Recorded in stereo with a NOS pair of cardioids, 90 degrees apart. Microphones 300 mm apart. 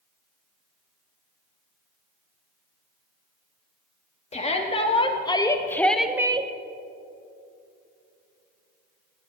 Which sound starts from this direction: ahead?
A shout, at 4.3 s.